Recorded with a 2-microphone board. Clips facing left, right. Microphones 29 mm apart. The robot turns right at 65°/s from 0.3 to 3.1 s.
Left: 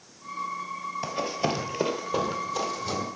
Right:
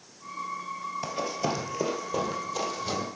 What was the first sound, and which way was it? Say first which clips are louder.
Running footsteps: left 2 dB; 15° left (ahead or behind).